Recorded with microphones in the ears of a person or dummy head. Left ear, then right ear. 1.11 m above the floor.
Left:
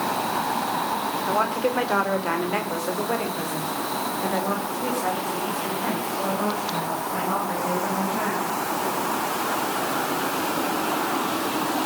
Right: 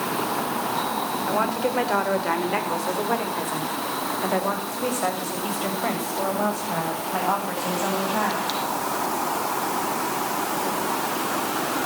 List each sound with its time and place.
1.3 s a woman speaking: 15° left (ahead or behind), 5.5 m; by 8.5 s 55° right (ahead or behind), 11 m